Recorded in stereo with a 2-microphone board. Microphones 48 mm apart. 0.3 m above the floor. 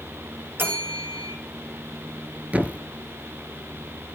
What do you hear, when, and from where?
0.6 s a bell: 50° right (ahead or behind), 2.5 m
2.5 s a thud: 30° right (ahead or behind), 1.2 m